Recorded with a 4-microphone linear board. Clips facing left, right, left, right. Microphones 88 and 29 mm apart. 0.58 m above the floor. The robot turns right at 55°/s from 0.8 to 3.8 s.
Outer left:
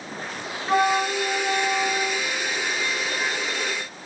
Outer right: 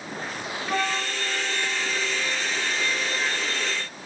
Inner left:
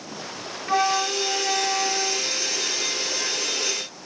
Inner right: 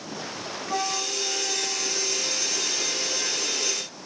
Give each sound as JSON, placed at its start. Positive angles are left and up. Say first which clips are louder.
{"t": 0.7, "sound": "a flute", "louder": "outer left 8 dB, inner left 7 dB", "azimuth_deg": 35, "distance_m": 0.5}